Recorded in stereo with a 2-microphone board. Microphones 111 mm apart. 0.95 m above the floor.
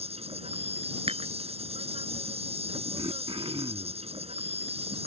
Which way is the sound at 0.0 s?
65° right (ahead or behind).